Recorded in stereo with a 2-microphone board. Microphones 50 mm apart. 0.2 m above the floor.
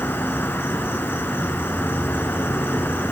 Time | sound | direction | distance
0.0 | an insect | 45° left (ahead or behind) | 1.2 m